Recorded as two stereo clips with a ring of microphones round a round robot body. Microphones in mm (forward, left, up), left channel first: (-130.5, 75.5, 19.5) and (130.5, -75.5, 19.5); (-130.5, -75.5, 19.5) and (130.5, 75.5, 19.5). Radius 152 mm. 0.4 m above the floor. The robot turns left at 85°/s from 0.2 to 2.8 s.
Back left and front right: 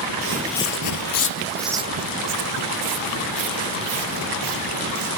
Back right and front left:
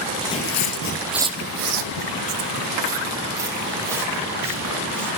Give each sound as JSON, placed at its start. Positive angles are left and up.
{"t": 0.2, "sound": "footsteps", "azimuth_deg": -60, "distance_m": 0.6}